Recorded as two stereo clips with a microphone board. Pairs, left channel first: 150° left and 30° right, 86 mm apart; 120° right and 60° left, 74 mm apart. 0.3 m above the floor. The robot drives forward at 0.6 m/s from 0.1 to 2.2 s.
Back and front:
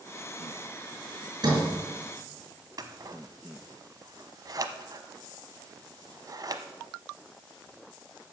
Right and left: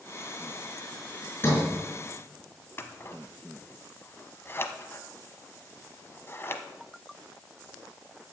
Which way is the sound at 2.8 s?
70° right.